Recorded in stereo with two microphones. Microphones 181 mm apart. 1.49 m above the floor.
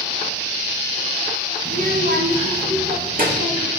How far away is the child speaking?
About 0.9 m.